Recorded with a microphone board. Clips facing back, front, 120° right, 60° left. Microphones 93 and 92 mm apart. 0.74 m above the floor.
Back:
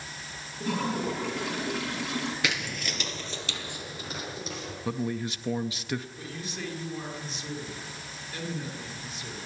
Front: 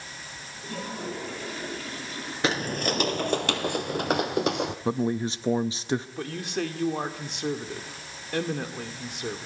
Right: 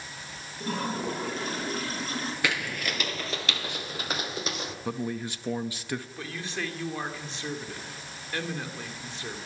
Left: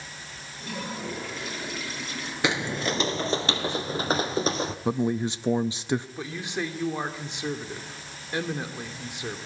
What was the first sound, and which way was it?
A toilet flushing, 170° right.